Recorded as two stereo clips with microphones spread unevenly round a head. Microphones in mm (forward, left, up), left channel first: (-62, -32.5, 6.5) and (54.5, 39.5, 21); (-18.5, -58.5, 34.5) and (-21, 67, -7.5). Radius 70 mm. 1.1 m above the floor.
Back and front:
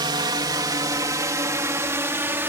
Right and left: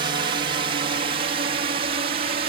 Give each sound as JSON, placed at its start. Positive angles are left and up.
{"t": 0.0, "sound": "a drone", "azimuth_deg": 85}